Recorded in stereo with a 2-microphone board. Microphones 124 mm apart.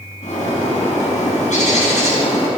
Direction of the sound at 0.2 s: 75° left (ahead or behind).